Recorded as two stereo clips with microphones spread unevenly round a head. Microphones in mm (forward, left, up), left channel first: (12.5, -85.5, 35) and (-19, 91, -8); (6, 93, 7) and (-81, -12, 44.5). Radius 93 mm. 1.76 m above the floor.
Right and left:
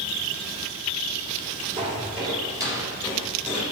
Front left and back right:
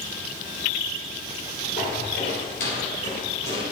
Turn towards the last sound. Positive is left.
turn(degrees=5)